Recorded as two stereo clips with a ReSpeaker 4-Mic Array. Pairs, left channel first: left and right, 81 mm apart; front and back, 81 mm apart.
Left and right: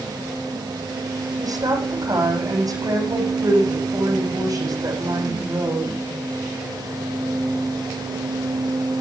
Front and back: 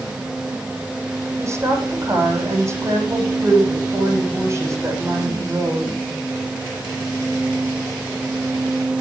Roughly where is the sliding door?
I don't hear a sliding door.